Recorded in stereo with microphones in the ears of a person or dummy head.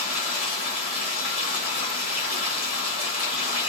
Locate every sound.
0.0 s running water: 35° left (ahead or behind), 2.5 m